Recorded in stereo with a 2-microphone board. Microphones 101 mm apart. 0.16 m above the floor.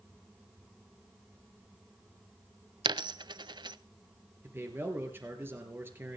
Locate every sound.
2.9 s a dropped coin: 50° right (ahead or behind), 0.5 m
4.4 s a man speaking: 25° right (ahead or behind), 3.5 m